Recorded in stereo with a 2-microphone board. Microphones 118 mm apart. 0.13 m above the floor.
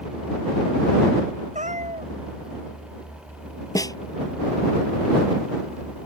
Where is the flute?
I don't hear a flute.